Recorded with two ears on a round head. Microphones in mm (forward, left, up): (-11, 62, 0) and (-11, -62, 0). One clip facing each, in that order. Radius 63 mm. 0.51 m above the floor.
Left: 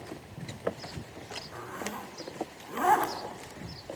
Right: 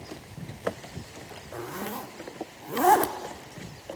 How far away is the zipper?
About 1.1 m.